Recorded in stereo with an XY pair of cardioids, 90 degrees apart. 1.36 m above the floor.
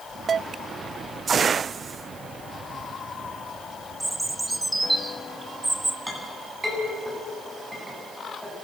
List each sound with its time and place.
4.0 s a bird: 15° right, 1.1 m
6.1 s a clink: 10° right, 8.5 m